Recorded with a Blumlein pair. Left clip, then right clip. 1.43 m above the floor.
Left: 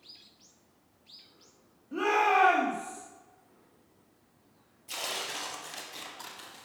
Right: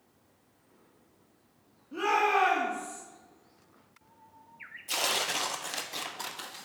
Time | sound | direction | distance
1.9 | a shout | 10° left | 3 m
4.9 | tearing paper | 70° right | 0.9 m